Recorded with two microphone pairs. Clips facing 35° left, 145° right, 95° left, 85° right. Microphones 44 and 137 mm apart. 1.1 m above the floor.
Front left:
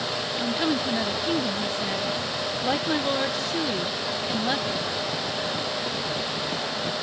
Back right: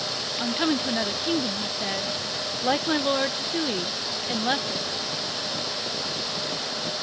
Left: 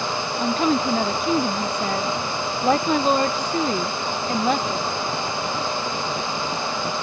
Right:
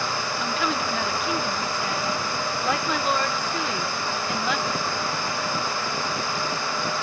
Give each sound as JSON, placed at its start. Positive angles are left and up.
{"t": 0.4, "sound": "a woman speaking", "azimuth_deg": 140}